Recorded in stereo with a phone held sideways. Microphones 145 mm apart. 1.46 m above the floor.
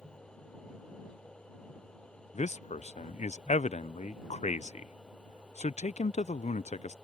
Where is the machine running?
5° left (ahead or behind).